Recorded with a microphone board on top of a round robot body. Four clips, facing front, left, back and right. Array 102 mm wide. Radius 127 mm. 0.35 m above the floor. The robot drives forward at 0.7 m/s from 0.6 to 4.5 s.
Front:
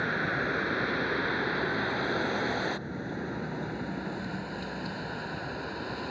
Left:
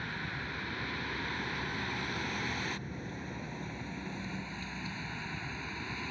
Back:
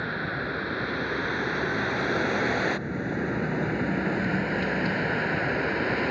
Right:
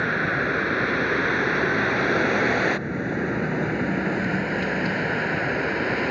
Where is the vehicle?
85° right; by 6.1 s 120° right.